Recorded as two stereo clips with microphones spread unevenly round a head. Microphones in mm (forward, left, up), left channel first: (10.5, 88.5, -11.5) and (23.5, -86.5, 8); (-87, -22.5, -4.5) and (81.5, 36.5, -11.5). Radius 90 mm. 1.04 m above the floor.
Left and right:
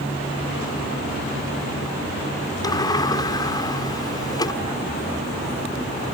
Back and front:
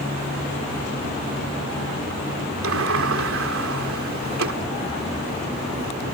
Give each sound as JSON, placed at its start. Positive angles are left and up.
{"t": 2.6, "sound": "a sliding door", "azimuth_deg": 25}